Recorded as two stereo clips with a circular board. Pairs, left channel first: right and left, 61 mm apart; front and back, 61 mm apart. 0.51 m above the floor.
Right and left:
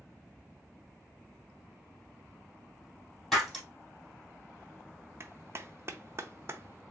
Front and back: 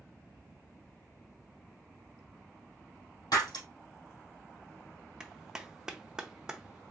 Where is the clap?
105° left, 0.5 m.